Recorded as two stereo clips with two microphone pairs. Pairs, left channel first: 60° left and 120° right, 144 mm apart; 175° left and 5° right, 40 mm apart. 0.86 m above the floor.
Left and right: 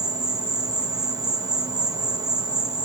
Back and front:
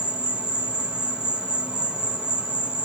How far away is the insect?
About 0.8 m.